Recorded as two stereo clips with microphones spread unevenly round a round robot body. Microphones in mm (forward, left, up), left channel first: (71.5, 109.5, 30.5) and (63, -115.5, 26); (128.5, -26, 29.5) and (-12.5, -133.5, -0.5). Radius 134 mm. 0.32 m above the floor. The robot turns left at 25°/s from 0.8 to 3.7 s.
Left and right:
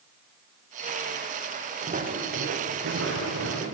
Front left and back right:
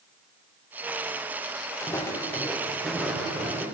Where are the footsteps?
35° right, 4 m; by 3.6 s 65° right, 6 m.